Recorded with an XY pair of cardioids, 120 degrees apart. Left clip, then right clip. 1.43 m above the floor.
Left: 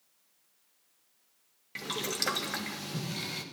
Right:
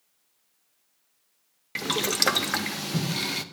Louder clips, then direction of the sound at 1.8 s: Right 8 dB; 50° right.